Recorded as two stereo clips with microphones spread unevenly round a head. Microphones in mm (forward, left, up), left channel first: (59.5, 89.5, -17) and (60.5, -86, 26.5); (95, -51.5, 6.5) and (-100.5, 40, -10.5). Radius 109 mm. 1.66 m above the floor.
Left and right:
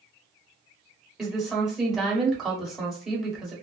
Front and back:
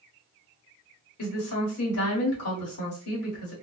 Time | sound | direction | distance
1.2 | a woman speaking | straight ahead | 1.6 m